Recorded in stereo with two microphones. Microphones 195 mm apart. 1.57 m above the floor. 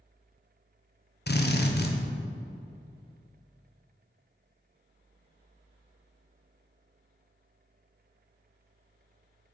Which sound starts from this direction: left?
A drill, at 1.3 s.